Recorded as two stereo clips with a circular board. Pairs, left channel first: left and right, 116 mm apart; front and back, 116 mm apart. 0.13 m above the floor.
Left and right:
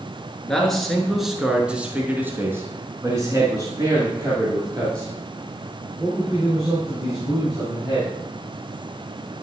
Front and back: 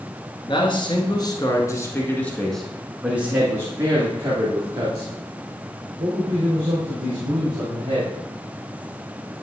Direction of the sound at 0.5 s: 5° left.